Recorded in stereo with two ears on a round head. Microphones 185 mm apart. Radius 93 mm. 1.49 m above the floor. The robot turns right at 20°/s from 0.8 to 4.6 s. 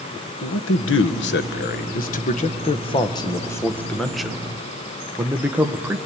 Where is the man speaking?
115° left, 1.1 m; by 6.0 s 170° right, 1.1 m.